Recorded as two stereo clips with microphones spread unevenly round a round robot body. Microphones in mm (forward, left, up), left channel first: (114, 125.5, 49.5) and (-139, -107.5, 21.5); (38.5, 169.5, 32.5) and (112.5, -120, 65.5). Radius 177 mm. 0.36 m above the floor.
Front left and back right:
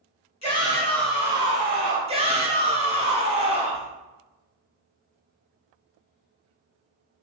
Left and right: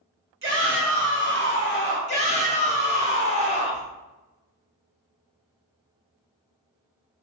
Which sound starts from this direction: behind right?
A shout, at 2.1 s.